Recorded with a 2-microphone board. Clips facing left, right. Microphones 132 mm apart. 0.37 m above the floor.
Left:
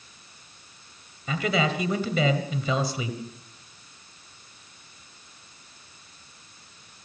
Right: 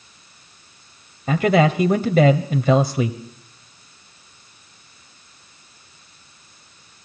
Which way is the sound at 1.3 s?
50° right (ahead or behind).